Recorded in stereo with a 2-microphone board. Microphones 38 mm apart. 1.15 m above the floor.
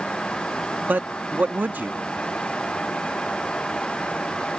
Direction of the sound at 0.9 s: 55° right (ahead or behind).